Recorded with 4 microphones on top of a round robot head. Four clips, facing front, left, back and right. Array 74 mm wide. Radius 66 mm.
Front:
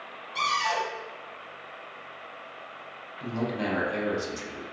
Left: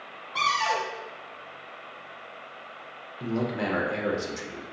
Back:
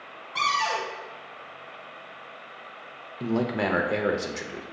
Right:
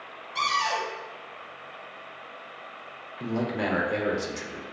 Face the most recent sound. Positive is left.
turn(degrees=-175)